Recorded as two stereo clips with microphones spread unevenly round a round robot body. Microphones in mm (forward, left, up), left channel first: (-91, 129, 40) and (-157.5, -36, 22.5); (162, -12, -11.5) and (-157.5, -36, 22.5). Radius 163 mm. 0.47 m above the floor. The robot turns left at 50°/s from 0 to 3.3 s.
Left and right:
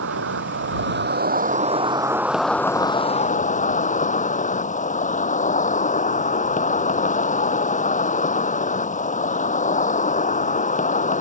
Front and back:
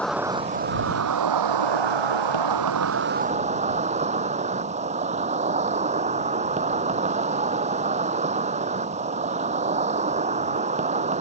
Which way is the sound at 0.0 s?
80° right.